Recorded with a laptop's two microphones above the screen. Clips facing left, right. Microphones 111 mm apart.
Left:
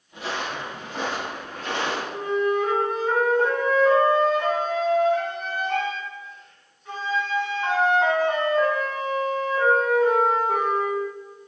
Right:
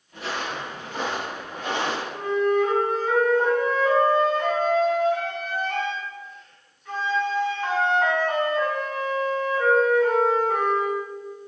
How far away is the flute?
About 1.6 m.